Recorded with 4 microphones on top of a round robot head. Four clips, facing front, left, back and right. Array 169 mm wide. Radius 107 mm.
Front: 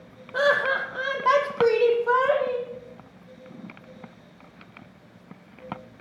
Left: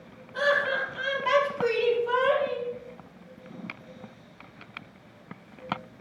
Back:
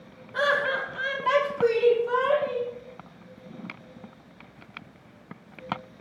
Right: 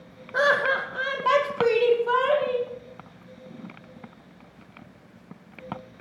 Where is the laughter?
55° right, 1.1 m; by 2.7 s 25° right, 2.5 m.